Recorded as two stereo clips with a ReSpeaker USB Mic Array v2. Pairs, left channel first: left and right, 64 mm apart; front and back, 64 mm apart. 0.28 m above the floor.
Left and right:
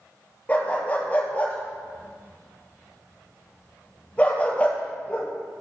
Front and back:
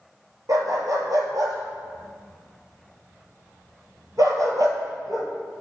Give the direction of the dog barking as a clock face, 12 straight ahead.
7 o'clock.